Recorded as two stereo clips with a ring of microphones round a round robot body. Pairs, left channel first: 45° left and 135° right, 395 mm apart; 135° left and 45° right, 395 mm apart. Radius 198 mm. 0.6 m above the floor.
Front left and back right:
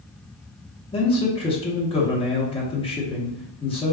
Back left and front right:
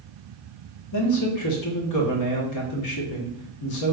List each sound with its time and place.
0.9 s a man speaking: 115° left, 0.9 m